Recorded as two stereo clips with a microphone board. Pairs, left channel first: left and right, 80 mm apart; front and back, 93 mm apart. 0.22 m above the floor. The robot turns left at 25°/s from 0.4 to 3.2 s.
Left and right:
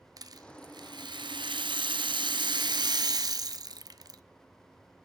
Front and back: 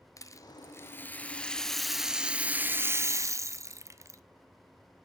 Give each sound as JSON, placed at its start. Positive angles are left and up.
{"t": 0.2, "sound": "a rattle", "azimuth_deg": -55, "distance_m": 0.7}